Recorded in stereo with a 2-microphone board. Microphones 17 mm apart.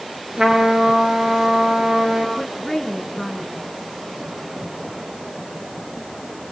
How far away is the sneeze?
No sneeze in this recording.